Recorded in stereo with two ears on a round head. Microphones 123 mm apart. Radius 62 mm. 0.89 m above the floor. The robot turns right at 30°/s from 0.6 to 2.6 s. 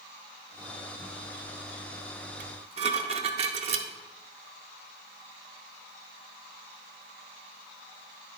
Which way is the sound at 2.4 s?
50° right (ahead or behind).